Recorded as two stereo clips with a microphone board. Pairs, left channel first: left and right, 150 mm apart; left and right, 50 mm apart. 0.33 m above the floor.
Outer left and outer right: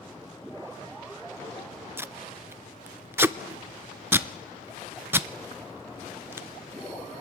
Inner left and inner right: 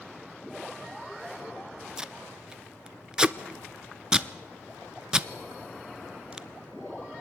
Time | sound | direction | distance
2.0 | tape being pulled | 15° right (ahead or behind) | 0.7 m